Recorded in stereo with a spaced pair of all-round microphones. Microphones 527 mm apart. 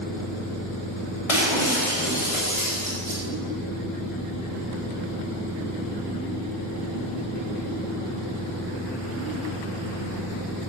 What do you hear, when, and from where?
1.3 s breaking glass: 75° left (ahead or behind), 5 m